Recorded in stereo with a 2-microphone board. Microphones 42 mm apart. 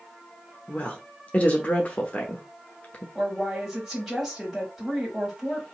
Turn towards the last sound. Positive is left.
turn(degrees=-5)  # may be behind; listen again after turning